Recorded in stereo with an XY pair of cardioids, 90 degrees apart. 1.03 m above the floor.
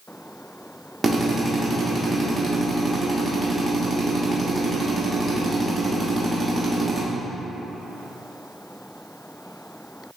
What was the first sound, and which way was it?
A drill, 25° right.